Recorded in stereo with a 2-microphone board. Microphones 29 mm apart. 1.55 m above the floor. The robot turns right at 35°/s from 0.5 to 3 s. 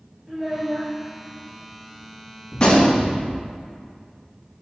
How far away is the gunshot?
About 1.8 m.